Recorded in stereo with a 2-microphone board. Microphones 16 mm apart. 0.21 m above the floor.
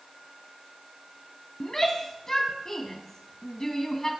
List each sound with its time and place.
1.6 s a shout: 30° left (ahead or behind), 1.6 m